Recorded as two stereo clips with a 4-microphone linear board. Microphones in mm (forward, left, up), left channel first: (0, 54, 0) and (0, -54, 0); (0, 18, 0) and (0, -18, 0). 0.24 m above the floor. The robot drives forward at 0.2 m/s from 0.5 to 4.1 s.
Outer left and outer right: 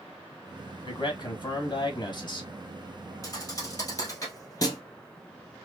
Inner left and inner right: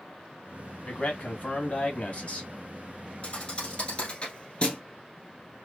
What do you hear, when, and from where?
0.8 s a man speaking: 45° left (ahead or behind), 1.6 m
3.2 s a thud: 30° left (ahead or behind), 2 m; by 4.8 s 35° left (ahead or behind), 2 m